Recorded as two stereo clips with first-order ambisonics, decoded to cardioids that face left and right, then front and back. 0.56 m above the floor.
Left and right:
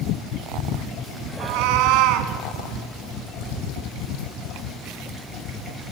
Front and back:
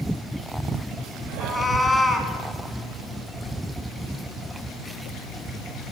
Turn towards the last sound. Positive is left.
turn(degrees=-75)